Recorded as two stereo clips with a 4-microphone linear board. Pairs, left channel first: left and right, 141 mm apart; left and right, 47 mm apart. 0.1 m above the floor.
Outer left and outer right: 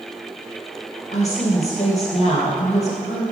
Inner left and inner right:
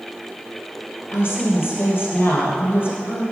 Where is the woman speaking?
50° left (ahead or behind), 2.5 m.